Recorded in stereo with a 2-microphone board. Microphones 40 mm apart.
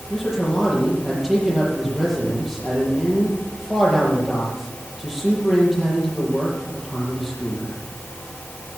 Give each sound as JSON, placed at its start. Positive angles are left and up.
{"t": 0.1, "sound": "a man speaking", "side_deg": -10, "distance_m": 6.5}